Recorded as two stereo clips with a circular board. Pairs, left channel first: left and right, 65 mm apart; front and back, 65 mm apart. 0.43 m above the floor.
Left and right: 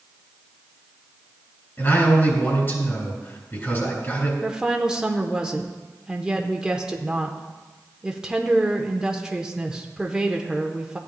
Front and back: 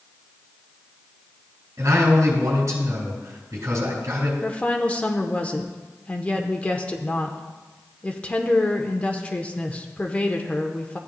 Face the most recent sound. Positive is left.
turn(degrees=-30)